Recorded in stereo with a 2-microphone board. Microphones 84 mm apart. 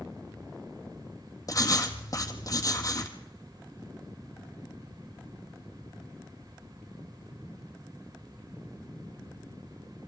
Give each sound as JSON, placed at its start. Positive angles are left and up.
{"t": 1.5, "sound": "writing", "side_deg": 40, "distance_m": 1.9}